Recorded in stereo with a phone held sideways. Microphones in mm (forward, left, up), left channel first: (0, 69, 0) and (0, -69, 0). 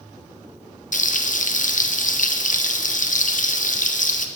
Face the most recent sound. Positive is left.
turn(degrees=65)  # may be behind; listen again after turning